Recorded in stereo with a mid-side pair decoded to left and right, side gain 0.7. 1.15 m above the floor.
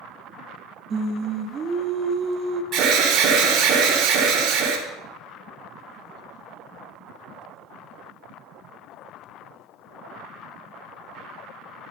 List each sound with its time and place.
0.9 s singing: 35° right, 1.5 m
2.7 s an alarm: 50° right, 3.5 m